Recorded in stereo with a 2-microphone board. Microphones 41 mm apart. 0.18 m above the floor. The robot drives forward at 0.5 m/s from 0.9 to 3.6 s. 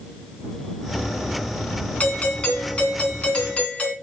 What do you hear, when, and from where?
2.0 s a doorbell: 35° left (ahead or behind), 2.5 m; by 3.9 s 30° left (ahead or behind), 3 m